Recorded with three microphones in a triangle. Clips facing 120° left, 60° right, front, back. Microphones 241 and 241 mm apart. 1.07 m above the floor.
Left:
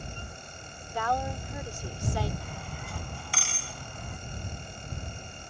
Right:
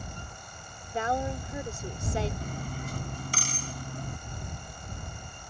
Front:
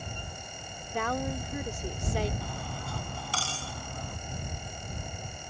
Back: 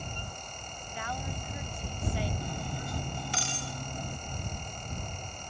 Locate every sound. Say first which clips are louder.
0.9 s a woman speaking: right 2 dB, front 9 dB; 5° left
2.4 s cutlery clinking: right 5 dB, back 2 dB; 110° right